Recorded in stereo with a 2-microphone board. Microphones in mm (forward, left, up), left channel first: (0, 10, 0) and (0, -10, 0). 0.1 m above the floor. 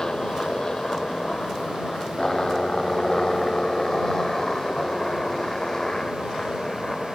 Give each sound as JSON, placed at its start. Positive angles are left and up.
{"t": 0.0, "sound": "a helicopter", "side_deg": 35}